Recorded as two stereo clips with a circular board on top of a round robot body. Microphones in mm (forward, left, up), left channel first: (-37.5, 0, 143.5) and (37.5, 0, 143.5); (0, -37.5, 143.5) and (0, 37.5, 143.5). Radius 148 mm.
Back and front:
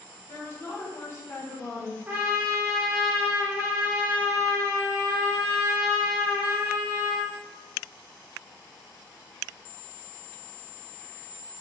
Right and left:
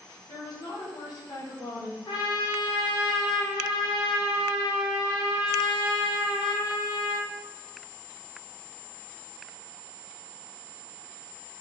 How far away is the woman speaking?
About 1.2 m.